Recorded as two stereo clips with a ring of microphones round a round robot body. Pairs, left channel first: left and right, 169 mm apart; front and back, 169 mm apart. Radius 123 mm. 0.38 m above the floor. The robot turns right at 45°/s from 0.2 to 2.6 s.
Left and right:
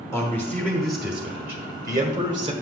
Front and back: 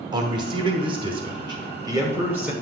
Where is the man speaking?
145° left, 1.0 m; by 2.5 s 110° right, 1.0 m.